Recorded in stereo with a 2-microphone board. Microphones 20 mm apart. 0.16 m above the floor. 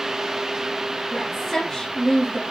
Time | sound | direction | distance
1.1 | a woman speaking | 15° left (ahead or behind) | 2.5 m